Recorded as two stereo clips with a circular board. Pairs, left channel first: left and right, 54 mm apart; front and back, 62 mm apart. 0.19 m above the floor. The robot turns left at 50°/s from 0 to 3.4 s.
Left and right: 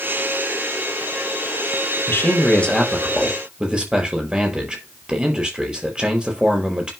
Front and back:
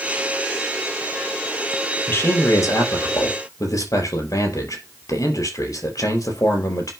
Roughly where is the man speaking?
Ahead left.